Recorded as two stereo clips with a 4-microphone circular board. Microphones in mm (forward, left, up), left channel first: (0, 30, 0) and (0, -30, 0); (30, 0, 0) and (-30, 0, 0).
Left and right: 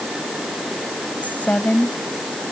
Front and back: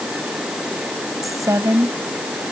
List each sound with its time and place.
1.2 s a woman speaking: 155° left